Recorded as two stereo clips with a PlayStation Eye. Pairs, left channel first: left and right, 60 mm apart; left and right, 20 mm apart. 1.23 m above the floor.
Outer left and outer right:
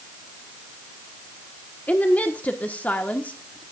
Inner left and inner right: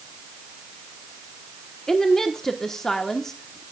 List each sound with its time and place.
1.9 s a woman speaking: 25° left (ahead or behind), 1.2 m